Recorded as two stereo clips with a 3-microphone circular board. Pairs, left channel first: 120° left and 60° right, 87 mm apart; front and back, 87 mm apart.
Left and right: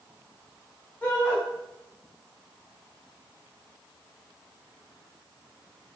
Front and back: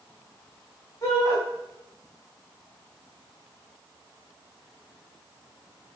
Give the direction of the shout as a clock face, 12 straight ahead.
11 o'clock.